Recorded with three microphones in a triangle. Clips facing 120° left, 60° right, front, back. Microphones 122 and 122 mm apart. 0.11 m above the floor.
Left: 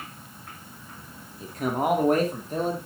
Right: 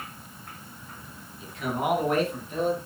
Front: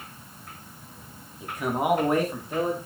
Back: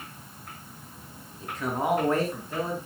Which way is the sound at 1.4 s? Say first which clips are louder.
Left 3 dB, front 2 dB; 80° left.